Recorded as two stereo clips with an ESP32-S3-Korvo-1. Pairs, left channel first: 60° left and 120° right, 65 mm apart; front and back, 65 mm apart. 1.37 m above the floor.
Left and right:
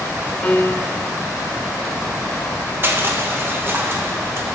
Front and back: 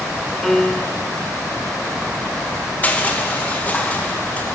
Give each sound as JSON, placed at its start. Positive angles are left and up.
{"t": 0.4, "sound": "a piano", "azimuth_deg": 90, "distance_m": 1.1}
{"t": 2.8, "sound": "crushing", "azimuth_deg": -65, "distance_m": 1.5}